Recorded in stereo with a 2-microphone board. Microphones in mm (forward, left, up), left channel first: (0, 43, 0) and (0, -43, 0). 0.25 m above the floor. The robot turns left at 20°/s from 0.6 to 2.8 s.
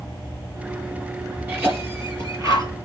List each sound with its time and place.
1.5 s a cough: 20° right (ahead or behind), 5 m; by 2.7 s 45° right (ahead or behind), 5 m